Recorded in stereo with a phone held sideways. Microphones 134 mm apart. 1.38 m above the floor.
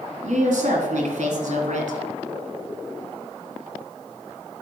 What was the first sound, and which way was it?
A woman speaking, 75° right (ahead or behind).